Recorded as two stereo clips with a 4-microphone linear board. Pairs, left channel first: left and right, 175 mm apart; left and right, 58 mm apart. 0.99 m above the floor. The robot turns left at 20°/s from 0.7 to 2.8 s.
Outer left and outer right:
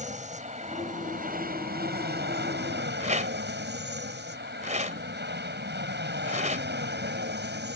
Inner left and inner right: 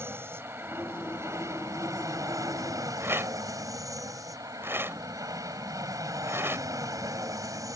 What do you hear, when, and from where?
0.0 s an aircraft: 40° right (ahead or behind); by 7.8 s 75° right (ahead or behind)
3.0 s a rattle: 45° right (ahead or behind)